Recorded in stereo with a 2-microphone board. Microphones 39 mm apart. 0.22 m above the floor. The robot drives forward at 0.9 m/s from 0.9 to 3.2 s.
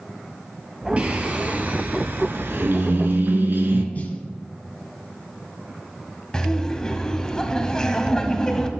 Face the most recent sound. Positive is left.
turn(degrees=20)  # may be behind; listen again after turning